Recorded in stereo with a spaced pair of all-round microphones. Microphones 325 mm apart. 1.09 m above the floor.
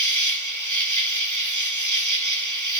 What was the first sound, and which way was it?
An insect, 65° right (ahead or behind).